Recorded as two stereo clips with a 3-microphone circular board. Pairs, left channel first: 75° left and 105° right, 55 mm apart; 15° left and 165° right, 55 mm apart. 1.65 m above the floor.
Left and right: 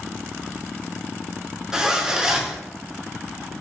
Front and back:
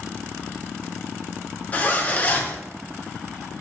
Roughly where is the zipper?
Ahead right.